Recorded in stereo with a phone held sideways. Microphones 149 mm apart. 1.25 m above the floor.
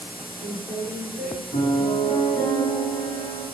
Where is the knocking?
I don't hear knocking.